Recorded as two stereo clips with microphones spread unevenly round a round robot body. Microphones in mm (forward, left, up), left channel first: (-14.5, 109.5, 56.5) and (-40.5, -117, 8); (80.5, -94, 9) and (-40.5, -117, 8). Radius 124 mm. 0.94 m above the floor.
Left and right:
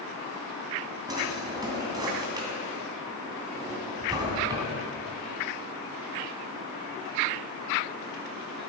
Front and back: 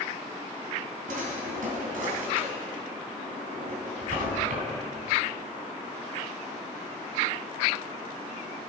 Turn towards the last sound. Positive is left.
turn(degrees=-175)